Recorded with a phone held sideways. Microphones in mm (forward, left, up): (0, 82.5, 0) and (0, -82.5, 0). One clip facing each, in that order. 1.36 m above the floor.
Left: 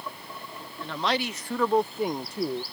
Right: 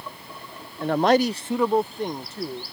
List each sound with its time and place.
0.8 s a man speaking: 60° right (ahead or behind); by 2.6 s 20° left (ahead or behind)